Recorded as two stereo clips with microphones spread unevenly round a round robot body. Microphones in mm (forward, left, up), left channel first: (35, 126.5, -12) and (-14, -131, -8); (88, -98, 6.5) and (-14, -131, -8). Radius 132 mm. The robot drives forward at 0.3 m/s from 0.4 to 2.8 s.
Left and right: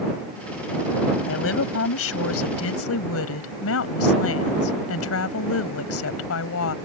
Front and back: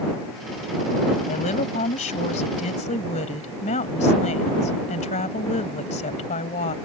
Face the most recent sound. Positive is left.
turn(degrees=40)